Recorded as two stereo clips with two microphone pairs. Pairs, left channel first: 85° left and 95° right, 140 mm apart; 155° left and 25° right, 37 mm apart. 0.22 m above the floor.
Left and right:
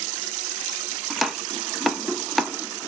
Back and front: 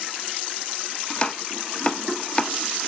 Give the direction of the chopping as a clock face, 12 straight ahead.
6 o'clock.